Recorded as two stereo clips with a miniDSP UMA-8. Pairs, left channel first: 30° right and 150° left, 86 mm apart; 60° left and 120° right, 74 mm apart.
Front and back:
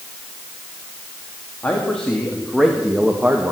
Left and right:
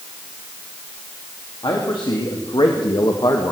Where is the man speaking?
45° left, 2.5 m; by 3.5 s 90° left, 1.3 m.